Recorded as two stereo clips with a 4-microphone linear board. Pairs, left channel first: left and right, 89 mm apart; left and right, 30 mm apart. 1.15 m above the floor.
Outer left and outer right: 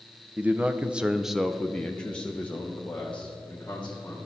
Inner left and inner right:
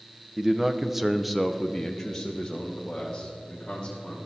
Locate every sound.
0.4 s a man speaking: 15° right (ahead or behind), 0.7 m; by 4.2 s 15° left (ahead or behind), 1.8 m